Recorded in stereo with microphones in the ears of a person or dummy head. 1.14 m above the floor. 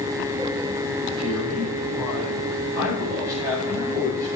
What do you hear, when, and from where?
1.2 s a man speaking: 10° left (ahead or behind), 4 m; by 4.3 s 20° right (ahead or behind), 6.5 m